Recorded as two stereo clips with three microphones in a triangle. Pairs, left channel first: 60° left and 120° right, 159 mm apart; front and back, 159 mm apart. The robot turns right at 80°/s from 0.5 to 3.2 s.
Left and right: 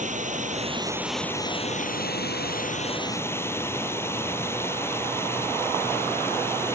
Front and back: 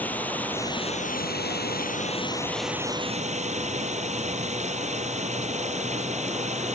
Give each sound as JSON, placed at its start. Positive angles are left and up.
{"t": 0.0, "sound": "running water", "azimuth_deg": -80}